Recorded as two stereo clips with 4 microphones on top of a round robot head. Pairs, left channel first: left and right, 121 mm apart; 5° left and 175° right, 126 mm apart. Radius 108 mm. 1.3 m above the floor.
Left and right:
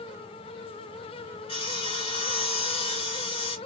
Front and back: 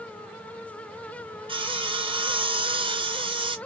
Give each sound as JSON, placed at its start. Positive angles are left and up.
{"t": 1.5, "sound": "sawing", "azimuth_deg": 135, "distance_m": 1.3}